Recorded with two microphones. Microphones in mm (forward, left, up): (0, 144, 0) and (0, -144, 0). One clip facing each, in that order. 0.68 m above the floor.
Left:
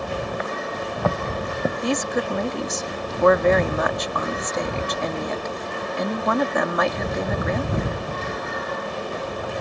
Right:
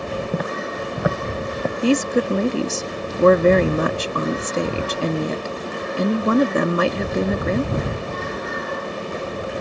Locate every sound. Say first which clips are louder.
0.3 s footsteps: right 3 dB; 55° right (ahead or behind); by 1.7 s 10° left (ahead or behind)
1.8 s a woman speaking: right 9 dB; 35° right (ahead or behind)